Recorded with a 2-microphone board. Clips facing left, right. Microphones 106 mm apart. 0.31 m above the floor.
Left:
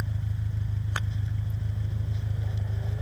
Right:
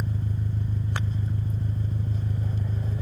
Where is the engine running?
45° right (ahead or behind).